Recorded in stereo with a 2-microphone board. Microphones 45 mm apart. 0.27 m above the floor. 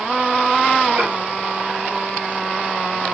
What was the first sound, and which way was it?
Dishes clattering, 50° right (ahead or behind).